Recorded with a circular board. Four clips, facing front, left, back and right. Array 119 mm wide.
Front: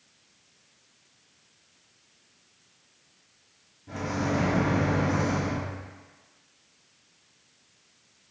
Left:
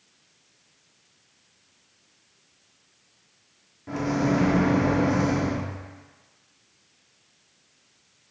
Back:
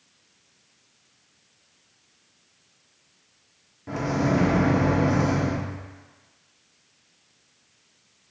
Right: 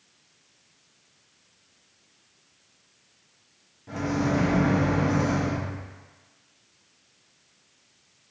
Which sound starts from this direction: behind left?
A microwave, at 3.9 s.